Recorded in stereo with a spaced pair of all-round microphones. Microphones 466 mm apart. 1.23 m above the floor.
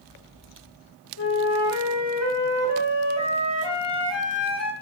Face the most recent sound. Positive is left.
turn(degrees=55)  # may be behind; listen again after turning